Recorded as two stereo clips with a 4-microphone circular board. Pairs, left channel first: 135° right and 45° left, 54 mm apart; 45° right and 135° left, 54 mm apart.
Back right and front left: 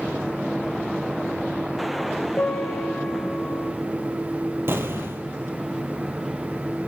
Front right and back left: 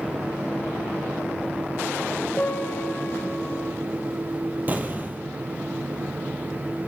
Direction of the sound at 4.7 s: 85° left.